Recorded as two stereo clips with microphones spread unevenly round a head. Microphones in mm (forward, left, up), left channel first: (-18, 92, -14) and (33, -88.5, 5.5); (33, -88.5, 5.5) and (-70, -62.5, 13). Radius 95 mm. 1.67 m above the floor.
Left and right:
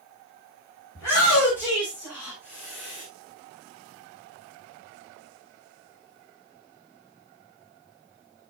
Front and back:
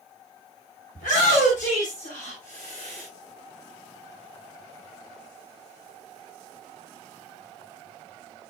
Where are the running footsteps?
No running footsteps in this recording.